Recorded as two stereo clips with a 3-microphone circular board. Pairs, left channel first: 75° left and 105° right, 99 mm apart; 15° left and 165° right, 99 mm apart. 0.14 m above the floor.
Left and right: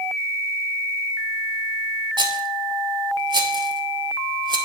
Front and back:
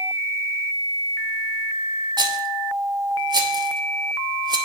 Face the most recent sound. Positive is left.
turn(degrees=-135)